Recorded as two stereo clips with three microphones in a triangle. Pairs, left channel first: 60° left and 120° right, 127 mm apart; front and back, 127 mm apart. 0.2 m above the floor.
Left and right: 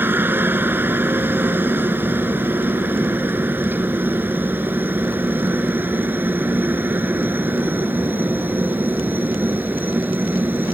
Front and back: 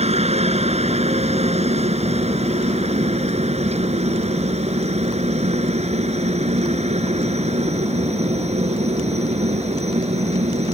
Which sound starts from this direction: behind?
A helicopter, at 0.0 s.